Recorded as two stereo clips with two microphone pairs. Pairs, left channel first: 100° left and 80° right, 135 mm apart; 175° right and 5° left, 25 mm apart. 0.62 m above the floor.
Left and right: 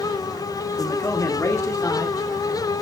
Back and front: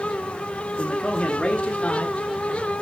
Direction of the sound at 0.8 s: 145° left.